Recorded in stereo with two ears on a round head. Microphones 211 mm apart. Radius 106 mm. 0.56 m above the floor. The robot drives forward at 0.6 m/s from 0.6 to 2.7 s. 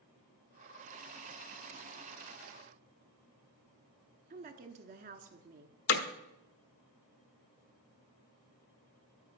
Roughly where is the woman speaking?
Right.